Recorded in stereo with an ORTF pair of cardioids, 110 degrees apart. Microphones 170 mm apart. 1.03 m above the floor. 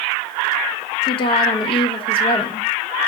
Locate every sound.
1.1 s a woman speaking: 30° left, 1.0 m